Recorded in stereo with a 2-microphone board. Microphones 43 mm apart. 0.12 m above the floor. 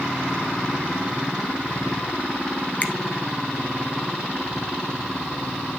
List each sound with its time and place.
2.8 s a finger snap: 45° left (ahead or behind), 1.5 m